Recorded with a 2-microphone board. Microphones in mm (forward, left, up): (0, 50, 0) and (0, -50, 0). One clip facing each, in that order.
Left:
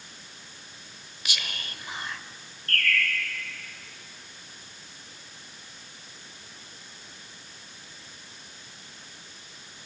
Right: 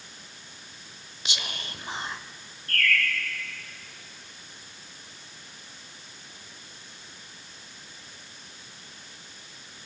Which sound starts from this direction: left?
A bird, at 2.7 s.